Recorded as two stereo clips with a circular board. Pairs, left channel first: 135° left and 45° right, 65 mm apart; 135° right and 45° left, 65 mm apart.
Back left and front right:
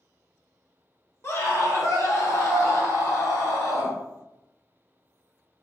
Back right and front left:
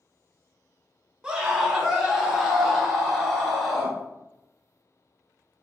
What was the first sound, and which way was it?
A scream, 120° left.